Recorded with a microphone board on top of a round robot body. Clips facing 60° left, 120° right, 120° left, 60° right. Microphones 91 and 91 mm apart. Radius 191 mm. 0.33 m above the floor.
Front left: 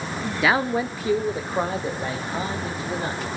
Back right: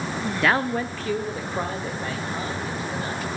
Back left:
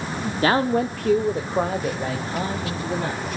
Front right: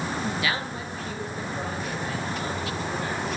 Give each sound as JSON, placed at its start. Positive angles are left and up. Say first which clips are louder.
{"t": 0.4, "sound": "a man speaking", "louder": "front left 1 dB, back left 10 dB", "azimuth_deg": 145, "distance_m": 1.1}